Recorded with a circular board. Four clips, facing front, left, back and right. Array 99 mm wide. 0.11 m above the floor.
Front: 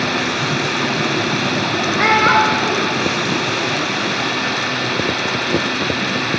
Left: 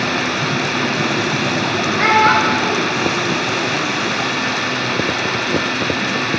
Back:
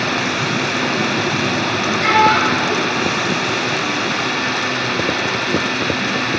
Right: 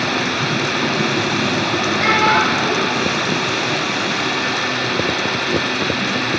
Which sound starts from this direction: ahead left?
A child speaking, at 2.0 s.